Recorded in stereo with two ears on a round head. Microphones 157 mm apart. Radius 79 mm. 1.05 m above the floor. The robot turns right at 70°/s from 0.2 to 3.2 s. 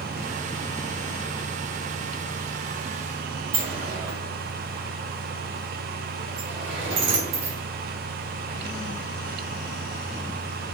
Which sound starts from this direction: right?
A sliding door, at 3.5 s.